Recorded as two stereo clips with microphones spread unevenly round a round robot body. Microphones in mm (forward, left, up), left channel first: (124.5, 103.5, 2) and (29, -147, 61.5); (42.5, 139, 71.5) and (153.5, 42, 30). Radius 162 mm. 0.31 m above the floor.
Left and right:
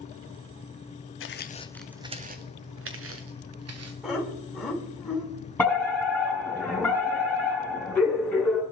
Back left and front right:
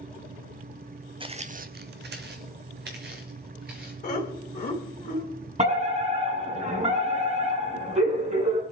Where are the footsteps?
20° left, 1.0 m; by 3.9 s 85° right, 3 m.